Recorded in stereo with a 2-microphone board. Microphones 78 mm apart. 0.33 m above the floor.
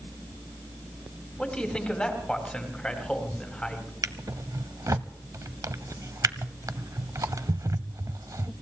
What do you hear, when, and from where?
1.4 s a man speaking: 15° left (ahead or behind), 2.5 m
4.0 s a drawer: 45° right (ahead or behind), 0.5 m